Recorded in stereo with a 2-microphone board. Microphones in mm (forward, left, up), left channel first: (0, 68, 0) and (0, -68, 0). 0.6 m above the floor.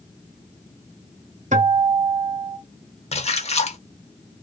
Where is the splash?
50° left (ahead or behind), 0.6 m.